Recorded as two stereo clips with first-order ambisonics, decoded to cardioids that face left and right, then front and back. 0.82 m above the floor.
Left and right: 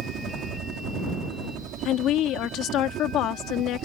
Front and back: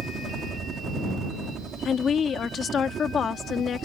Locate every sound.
0.0 s a helicopter: 120° right
1.9 s a woman speaking: 60° left